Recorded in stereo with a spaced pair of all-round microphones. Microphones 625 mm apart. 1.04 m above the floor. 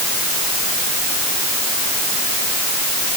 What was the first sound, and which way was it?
Only background noise.